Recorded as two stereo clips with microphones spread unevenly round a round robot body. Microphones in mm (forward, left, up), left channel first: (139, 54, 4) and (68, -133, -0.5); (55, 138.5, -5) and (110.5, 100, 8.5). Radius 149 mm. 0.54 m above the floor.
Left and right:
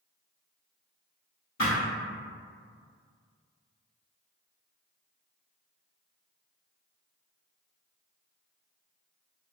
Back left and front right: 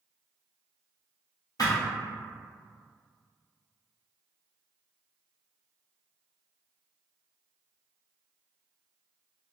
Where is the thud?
120° left, 1.8 m.